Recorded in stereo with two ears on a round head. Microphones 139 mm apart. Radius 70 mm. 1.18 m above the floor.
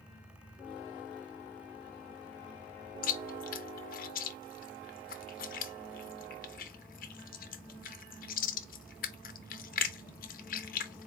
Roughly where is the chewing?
Left.